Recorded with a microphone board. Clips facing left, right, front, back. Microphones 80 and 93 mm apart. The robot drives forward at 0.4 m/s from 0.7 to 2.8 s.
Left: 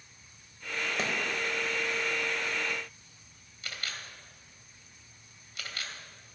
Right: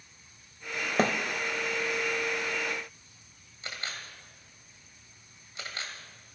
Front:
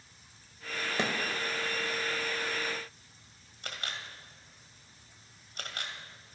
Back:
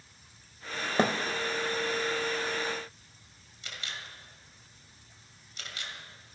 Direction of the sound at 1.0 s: 130° right.